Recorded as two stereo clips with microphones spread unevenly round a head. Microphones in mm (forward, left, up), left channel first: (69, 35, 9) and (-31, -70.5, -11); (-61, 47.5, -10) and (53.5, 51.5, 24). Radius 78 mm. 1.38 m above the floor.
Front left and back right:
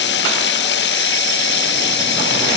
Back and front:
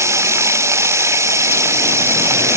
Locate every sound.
0.0 s running water: 65° left